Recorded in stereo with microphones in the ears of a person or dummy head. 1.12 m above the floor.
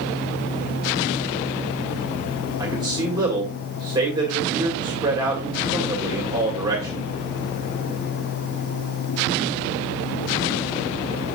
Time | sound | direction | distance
2.6 | a man speaking | 25° right (ahead or behind) | 2.0 m